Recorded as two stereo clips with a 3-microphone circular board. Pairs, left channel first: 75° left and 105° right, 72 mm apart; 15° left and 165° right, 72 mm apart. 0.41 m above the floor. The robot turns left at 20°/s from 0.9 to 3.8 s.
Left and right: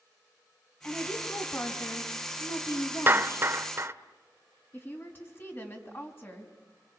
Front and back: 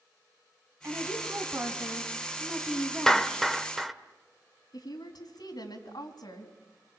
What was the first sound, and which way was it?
A woman speaking, 145° left.